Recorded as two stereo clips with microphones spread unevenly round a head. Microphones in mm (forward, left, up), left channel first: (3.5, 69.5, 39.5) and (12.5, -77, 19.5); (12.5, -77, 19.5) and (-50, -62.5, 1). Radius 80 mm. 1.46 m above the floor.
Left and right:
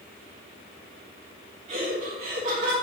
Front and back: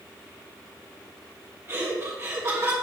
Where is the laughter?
140° right, 1.5 m.